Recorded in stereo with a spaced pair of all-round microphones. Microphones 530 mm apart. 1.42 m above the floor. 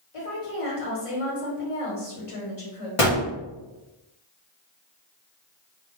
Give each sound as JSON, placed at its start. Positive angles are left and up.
{"t": 0.1, "sound": "a woman speaking", "side_deg": 70, "distance_m": 1.3}
{"t": 3.0, "sound": "a gunshot", "side_deg": 65, "distance_m": 0.8}